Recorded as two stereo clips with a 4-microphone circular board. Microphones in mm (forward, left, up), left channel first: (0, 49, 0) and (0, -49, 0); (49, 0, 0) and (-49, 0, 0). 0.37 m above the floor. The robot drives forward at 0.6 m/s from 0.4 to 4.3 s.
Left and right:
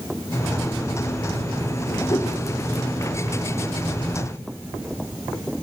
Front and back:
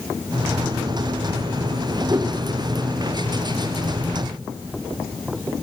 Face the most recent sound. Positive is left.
turn(degrees=160)